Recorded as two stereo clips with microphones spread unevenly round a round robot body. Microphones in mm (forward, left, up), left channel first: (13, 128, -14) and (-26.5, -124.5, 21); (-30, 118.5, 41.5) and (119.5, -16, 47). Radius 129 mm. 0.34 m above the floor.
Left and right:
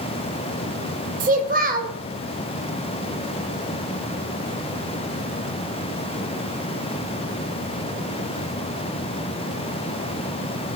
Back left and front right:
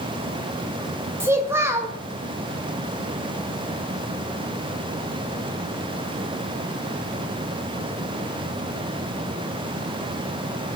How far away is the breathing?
I don't hear breathing.